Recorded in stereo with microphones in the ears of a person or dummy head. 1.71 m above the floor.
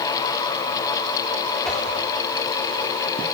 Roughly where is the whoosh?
Centre.